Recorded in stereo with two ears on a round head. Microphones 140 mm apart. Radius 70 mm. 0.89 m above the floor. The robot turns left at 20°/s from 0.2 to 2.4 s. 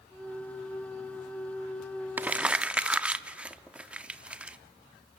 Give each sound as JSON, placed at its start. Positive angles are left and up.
{"t": 2.2, "sound": "crumpling", "side_deg": -10, "distance_m": 0.6}